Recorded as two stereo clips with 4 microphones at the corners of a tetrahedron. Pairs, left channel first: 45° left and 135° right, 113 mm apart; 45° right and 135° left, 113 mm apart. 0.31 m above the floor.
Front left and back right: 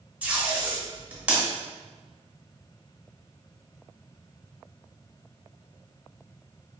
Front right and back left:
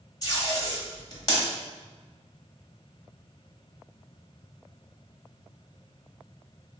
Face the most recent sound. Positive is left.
turn(degrees=-65)